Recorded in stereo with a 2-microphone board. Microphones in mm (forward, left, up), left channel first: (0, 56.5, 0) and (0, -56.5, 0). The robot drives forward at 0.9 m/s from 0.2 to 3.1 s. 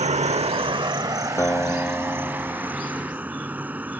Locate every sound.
0.0 s an insect: 75° right (ahead or behind); by 4.0 s 15° right (ahead or behind)
1.4 s a guitar: 25° left (ahead or behind); by 3.4 s 15° left (ahead or behind)